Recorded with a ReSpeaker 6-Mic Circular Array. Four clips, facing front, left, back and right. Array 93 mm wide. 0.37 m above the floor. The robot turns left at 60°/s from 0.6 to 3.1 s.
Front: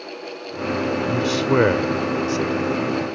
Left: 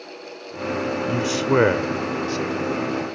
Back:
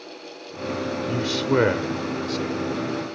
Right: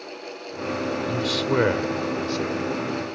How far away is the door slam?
I don't hear a door slam.